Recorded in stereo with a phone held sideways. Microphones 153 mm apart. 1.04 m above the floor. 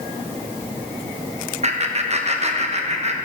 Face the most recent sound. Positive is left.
turn(degrees=-45)  # may be behind; listen again after turning